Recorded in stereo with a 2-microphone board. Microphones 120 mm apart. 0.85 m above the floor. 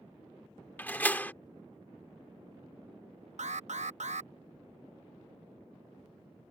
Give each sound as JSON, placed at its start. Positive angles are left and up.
{"t": 0.8, "sound": "a door slam", "side_deg": 15}
{"t": 3.4, "sound": "an alarm", "side_deg": -80}